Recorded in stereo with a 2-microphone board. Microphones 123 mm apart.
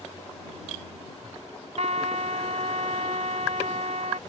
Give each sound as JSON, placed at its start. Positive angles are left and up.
{"t": 1.8, "sound": "a trumpet", "side_deg": -65}